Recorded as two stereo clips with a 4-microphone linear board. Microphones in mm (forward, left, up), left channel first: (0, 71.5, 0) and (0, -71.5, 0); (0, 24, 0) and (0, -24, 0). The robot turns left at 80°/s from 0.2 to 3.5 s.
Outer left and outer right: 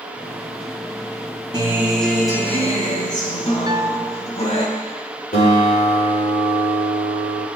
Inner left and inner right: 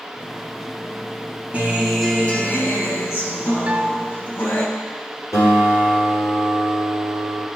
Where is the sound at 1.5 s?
145° right, 3 m; by 4.7 s 55° left, 3 m.